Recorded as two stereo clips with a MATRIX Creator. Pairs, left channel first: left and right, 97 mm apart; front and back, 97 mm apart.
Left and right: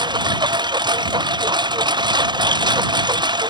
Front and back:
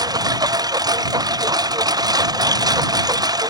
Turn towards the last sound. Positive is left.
turn(degrees=-130)